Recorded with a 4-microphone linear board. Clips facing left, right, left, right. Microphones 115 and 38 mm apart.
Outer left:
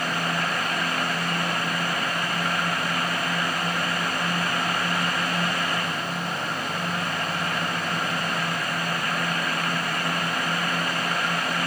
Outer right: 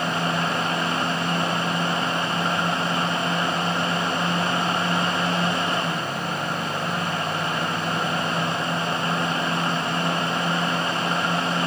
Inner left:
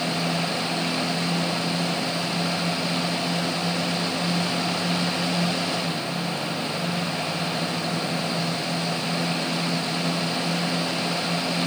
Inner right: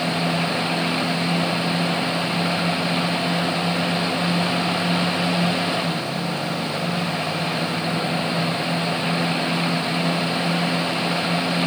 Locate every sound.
Only background noise.